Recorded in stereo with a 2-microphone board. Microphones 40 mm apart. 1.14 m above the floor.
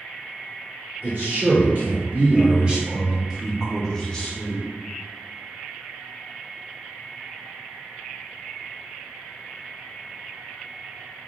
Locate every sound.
1.0 s a man speaking: 55° right (ahead or behind), 1.6 m; by 4.6 s 25° left (ahead or behind), 1.1 m